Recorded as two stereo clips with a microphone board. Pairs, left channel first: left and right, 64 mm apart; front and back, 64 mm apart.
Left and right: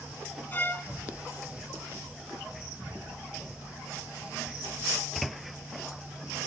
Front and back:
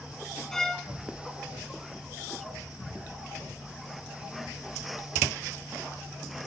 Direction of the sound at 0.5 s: 75° left.